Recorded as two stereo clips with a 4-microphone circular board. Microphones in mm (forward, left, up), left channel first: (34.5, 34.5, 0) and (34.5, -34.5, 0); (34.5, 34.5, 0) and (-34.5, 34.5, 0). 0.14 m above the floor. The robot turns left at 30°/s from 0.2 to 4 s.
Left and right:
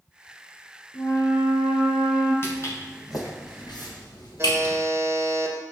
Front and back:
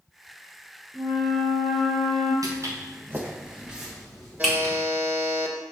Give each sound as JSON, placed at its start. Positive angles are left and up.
{"t": 0.9, "sound": "a flute", "azimuth_deg": 115, "distance_m": 3.5}
{"t": 2.4, "sound": "footsteps", "azimuth_deg": 145, "distance_m": 3.5}
{"t": 4.4, "sound": "a buzzer", "azimuth_deg": -120, "distance_m": 2.0}